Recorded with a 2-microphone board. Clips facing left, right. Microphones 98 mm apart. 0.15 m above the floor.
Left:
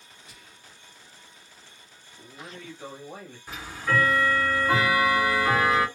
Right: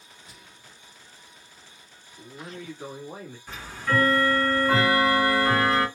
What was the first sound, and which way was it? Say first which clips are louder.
Whispering: right 1 dB; 30° right (ahead or behind).